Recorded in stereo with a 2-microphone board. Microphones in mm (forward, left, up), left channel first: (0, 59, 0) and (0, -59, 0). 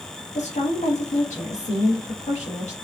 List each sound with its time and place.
0.3 s a woman speaking: 75° left (ahead or behind), 1.3 m